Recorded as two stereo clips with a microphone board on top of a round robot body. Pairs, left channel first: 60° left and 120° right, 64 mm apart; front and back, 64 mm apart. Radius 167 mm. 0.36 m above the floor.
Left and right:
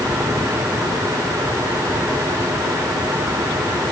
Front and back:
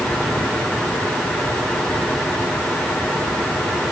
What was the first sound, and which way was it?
Only background noise.